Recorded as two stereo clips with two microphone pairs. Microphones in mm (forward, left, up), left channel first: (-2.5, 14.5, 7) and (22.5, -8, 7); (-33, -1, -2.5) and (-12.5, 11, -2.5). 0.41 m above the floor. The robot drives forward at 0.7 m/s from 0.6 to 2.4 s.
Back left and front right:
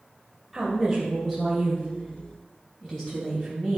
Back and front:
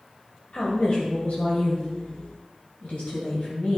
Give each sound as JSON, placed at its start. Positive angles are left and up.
{"t": 0.5, "sound": "a woman speaking", "azimuth_deg": -125, "distance_m": 2.0}